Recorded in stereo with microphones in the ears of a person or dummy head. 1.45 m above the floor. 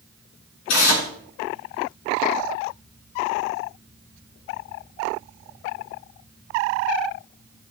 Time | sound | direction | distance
0.7 | tearing paper | 80° left | 6.5 m